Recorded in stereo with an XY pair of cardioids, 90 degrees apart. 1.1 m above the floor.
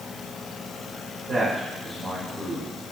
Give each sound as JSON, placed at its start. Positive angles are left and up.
{"t": 1.3, "sound": "a man speaking", "azimuth_deg": -50, "distance_m": 4.0}